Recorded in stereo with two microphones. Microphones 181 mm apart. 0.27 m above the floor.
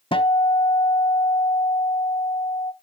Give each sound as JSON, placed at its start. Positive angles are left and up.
{"t": 0.1, "sound": "a guitar", "side_deg": 30, "distance_m": 0.7}